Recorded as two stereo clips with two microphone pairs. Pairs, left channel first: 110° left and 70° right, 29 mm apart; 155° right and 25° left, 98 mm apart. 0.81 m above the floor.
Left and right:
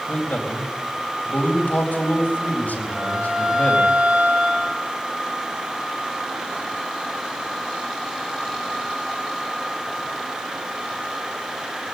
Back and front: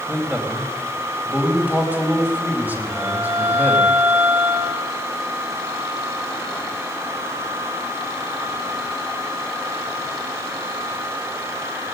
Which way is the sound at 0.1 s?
100° left.